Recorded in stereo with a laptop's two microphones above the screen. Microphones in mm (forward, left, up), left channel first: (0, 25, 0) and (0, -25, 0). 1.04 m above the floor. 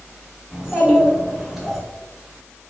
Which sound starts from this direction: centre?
A child speaking, at 0.5 s.